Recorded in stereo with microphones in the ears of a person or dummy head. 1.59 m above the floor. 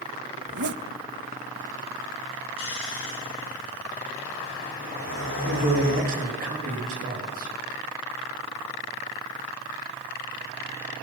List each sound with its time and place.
0.4 s a zipper: 55° right (ahead or behind), 0.6 m
2.6 s snoring: 70° left (ahead or behind), 5.5 m
5.5 s a man speaking: 50° right (ahead or behind), 3.5 m